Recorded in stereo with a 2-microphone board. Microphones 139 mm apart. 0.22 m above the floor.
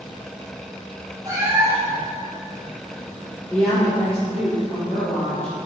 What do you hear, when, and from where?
1.2 s a cat meowing: 20° right (ahead or behind), 4 m
3.5 s a woman speaking: 15° left (ahead or behind), 4.5 m